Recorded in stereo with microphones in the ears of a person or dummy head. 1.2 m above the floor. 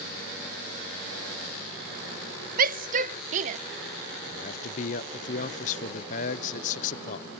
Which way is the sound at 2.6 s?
45° right (ahead or behind).